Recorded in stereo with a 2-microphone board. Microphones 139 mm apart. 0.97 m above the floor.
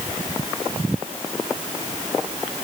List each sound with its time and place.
Only background noise.